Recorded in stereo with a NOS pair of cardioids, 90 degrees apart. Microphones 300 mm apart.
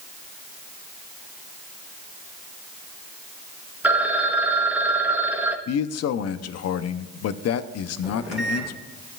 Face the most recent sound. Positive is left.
turn(degrees=0)